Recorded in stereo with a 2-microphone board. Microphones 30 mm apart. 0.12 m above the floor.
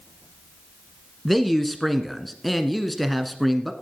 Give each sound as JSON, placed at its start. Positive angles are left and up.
{"t": 1.2, "sound": "a man speaking", "side_deg": 0, "distance_m": 1.2}